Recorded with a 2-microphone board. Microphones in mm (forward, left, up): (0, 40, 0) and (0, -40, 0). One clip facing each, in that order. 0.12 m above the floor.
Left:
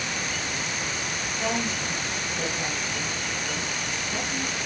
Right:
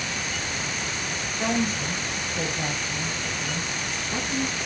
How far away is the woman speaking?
About 2.5 m.